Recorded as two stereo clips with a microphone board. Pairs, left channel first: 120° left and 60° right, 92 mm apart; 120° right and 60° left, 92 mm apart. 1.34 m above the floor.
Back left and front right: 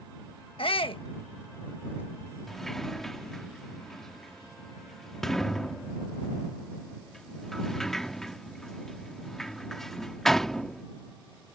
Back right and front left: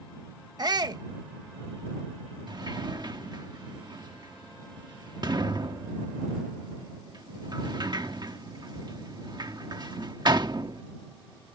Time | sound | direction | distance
0.6 | a shout | 105° left | ?
2.5 | a sliding door | 35° left | ?